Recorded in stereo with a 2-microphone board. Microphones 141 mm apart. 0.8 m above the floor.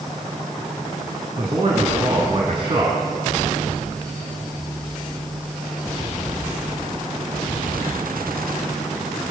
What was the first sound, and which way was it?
A man speaking, 35° right (ahead or behind).